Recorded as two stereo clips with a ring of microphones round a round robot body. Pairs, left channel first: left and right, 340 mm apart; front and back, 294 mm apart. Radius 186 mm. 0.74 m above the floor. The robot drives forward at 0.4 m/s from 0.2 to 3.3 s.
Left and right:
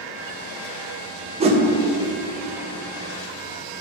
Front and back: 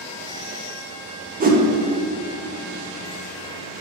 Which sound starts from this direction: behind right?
A whoosh, at 1.4 s.